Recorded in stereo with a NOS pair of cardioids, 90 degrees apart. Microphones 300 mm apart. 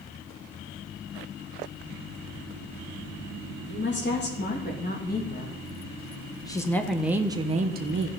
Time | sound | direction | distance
3.7 | a woman speaking | 40° left | 3 m